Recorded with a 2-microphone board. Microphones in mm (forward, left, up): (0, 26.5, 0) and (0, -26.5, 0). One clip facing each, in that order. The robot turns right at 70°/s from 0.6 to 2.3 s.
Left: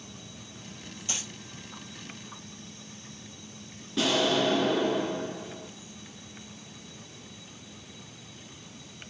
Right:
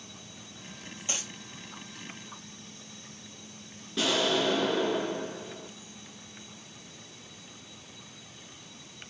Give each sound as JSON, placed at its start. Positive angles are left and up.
{"t": 1.1, "sound": "a dropped coin", "side_deg": -25, "distance_m": 1.2}
{"t": 4.0, "sound": "an explosion", "side_deg": 0, "distance_m": 1.0}